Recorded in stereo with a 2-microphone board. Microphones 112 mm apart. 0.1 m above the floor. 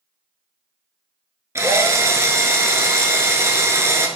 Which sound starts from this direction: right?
A drill, at 1.6 s.